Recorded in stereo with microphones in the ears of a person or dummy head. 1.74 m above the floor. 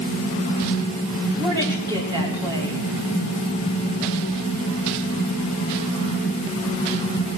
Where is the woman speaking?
25° right (ahead or behind), 3.5 m.